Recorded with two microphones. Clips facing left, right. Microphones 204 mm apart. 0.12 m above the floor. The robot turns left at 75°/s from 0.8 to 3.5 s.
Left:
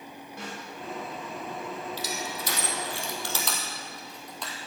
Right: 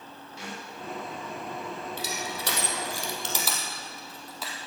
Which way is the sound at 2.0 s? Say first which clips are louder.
Even; 55° right (ahead or behind).